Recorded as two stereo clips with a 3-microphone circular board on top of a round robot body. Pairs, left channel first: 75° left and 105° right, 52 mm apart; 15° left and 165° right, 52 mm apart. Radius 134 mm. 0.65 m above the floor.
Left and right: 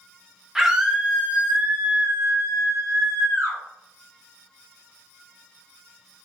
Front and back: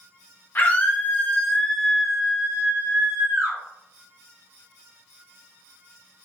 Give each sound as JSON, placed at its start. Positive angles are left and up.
{"t": 0.6, "sound": "a scream", "azimuth_deg": -25, "distance_m": 1.3}